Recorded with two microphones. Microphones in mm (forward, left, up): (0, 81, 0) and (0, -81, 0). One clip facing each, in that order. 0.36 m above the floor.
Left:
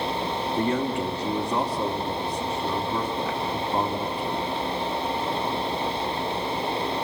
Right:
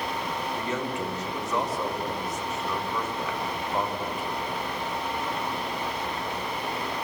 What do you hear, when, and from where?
0.6 s a man speaking: 35° left (ahead or behind), 3 m